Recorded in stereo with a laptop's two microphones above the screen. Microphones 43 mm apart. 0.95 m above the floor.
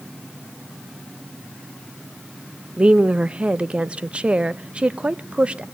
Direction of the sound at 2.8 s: 25° right (ahead or behind).